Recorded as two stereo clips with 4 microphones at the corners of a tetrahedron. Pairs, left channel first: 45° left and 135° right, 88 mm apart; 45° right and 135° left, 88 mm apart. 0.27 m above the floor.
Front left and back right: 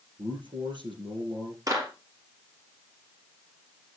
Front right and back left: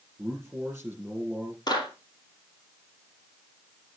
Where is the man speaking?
155° right, 6.5 m.